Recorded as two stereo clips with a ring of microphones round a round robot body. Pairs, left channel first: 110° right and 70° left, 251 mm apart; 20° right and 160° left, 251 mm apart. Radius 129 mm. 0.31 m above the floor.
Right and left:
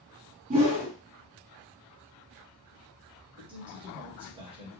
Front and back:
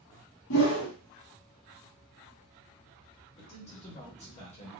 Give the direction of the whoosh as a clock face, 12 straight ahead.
12 o'clock.